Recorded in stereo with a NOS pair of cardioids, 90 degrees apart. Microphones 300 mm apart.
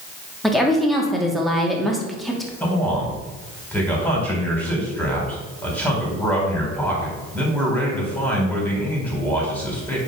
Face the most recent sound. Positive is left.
turn(degrees=5)